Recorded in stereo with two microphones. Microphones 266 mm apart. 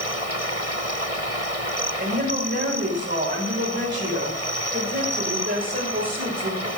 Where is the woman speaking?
45° right (ahead or behind), 4 m.